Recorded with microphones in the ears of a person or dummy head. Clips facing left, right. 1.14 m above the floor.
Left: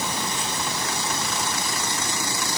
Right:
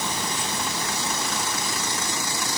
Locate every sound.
Only background noise.